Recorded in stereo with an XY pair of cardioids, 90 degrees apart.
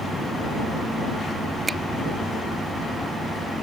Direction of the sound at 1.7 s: 30° right.